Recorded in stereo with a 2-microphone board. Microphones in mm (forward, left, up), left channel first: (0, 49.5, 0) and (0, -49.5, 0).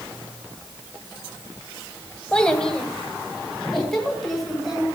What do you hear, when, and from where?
2.3 s a child speaking: 10° left (ahead or behind), 1.2 m; by 4.9 s centre (ahead or behind), 3 m